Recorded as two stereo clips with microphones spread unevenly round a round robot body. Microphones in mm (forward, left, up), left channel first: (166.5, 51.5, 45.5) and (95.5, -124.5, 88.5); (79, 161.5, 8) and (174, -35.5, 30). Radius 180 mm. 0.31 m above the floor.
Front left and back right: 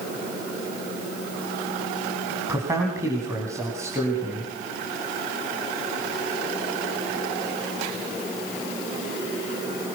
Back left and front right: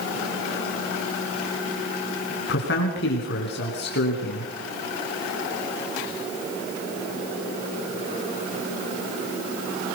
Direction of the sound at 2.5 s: 165° left.